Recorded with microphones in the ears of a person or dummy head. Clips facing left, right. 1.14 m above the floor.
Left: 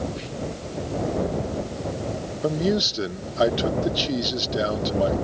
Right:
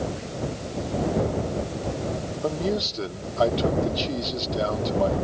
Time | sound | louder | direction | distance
0.2 | whispering | left 1 dB | 45° left (ahead or behind) | ?
2.4 | a man speaking | left 4 dB | 15° left (ahead or behind) | ?